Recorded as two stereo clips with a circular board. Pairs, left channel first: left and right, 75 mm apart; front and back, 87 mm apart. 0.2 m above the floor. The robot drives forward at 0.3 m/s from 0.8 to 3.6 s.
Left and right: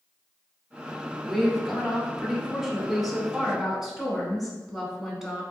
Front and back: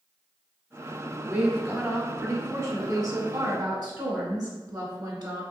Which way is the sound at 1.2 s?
175° right.